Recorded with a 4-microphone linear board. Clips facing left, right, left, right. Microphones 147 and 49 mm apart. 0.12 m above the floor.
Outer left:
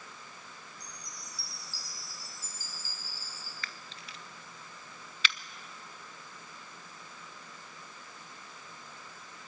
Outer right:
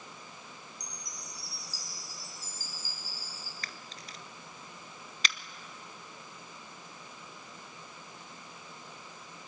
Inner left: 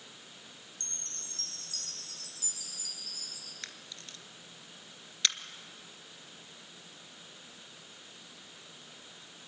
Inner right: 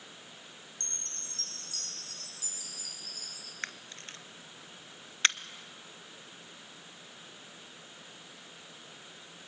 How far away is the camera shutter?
About 0.7 m.